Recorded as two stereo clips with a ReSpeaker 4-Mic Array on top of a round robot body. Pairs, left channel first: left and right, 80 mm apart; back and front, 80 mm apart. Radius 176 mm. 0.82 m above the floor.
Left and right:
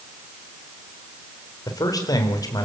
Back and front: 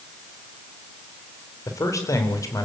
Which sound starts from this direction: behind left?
A man speaking, at 1.7 s.